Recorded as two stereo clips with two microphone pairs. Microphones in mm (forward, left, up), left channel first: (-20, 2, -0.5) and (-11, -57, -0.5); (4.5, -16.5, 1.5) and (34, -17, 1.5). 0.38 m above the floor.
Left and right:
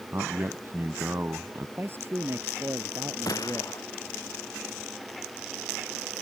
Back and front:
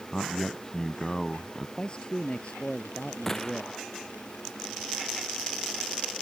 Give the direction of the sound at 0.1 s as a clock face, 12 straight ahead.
4 o'clock.